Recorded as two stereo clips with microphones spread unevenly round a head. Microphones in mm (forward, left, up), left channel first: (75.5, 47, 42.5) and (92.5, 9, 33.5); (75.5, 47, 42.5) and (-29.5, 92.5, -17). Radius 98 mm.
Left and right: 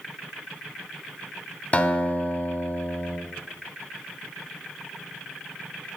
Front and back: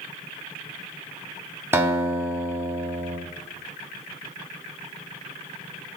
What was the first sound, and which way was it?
A guitar, 75° left.